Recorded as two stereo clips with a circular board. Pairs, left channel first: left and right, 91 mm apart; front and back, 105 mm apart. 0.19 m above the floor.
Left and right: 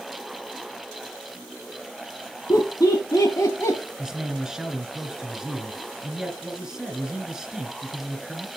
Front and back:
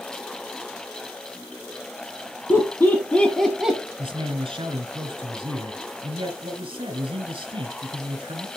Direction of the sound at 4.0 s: 175° right.